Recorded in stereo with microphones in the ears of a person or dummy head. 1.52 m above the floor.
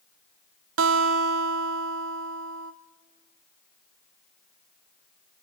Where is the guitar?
80° right, 1.2 m.